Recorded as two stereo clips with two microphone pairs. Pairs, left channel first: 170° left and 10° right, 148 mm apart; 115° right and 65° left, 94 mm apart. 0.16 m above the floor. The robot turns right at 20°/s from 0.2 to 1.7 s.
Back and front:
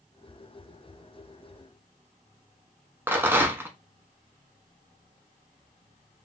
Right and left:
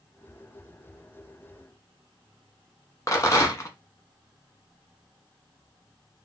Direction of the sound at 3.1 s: 80° right.